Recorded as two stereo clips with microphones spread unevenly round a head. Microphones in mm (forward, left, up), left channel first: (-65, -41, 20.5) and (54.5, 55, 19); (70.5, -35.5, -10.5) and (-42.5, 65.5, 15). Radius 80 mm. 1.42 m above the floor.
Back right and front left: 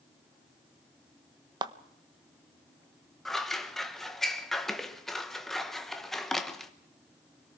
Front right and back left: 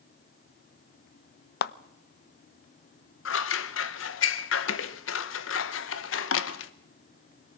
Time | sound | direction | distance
1.6 | a clap | 25° right | 0.7 m
3.2 | scissors | 55° right | 1.2 m